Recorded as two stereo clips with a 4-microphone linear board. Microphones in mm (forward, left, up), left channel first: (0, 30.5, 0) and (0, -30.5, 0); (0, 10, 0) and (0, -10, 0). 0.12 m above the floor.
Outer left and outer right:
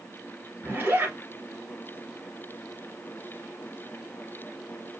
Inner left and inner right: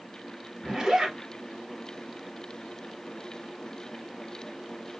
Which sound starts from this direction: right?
A zipper, at 0.6 s.